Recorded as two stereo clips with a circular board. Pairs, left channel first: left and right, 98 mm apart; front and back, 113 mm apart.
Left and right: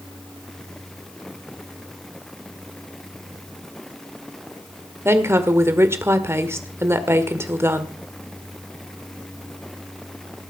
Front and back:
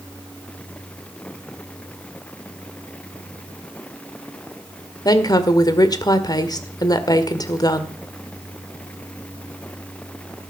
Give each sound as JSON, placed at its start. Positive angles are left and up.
{"t": 5.0, "sound": "a woman speaking", "azimuth_deg": -35, "distance_m": 1.8}